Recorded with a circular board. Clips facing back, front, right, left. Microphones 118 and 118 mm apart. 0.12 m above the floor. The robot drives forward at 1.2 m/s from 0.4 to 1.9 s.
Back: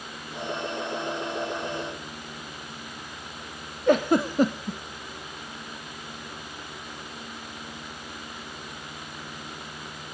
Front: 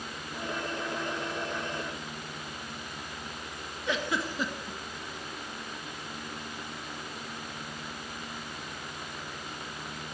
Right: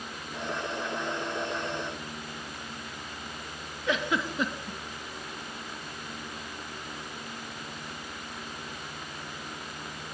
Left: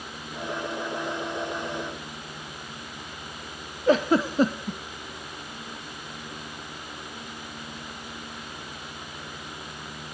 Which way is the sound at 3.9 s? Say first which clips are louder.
Back 11 dB, left 9 dB; 140° left.